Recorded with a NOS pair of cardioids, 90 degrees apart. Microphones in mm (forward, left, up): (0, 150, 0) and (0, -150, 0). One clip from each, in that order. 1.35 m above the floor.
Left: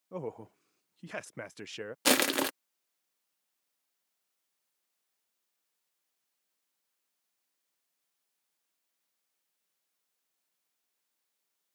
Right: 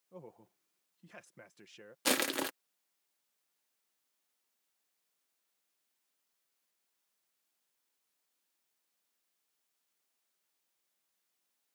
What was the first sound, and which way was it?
A man speaking, 70° left.